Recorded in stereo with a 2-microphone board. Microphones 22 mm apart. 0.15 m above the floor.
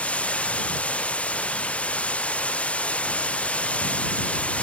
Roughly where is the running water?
Left.